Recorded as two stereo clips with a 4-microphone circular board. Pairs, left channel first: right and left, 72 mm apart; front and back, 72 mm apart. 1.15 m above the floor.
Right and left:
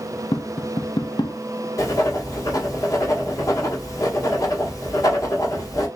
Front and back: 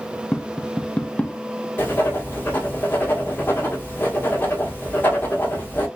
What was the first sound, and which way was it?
Tapping, 75° right.